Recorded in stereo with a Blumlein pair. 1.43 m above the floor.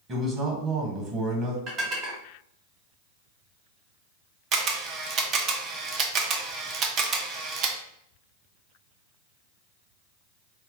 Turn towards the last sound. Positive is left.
turn(degrees=-30)